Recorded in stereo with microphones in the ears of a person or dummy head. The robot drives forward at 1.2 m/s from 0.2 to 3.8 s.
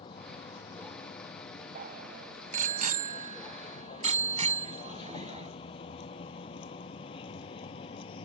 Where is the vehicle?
30° left (ahead or behind).